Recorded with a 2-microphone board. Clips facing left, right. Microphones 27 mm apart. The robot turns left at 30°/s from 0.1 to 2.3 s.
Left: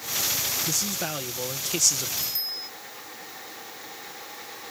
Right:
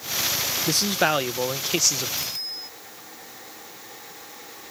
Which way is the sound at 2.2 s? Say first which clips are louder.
Even; 5° right (ahead or behind).